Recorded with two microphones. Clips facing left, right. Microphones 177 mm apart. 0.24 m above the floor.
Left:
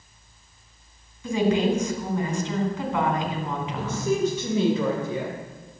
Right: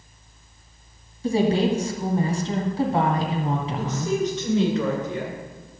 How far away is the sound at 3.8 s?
About 2.5 m.